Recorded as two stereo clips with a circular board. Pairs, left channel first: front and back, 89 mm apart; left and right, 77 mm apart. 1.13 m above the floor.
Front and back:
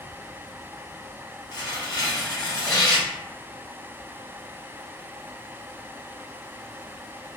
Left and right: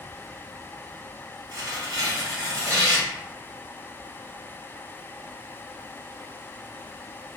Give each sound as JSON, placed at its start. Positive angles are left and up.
{"t": 1.5, "sound": "tearing paper", "azimuth_deg": -45, "distance_m": 0.8}